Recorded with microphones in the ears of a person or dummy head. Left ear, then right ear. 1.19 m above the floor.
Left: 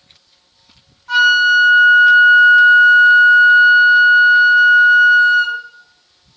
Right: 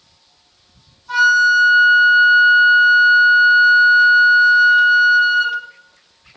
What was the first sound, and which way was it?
A flute, 60° left (ahead or behind).